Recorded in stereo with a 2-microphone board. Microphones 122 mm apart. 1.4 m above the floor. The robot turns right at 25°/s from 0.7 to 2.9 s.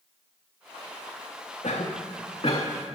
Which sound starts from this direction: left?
A cough, at 1.6 s.